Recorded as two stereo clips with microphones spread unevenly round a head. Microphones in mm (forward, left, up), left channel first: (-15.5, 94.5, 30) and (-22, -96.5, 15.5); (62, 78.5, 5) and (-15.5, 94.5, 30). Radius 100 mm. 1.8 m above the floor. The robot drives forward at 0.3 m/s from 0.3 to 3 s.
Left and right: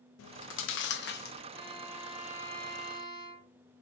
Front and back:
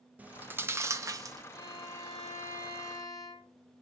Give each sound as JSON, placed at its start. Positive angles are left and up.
{"t": 0.2, "sound": "chewing", "azimuth_deg": 100, "distance_m": 0.6}
{"t": 1.5, "sound": "a violin", "azimuth_deg": -25, "distance_m": 1.4}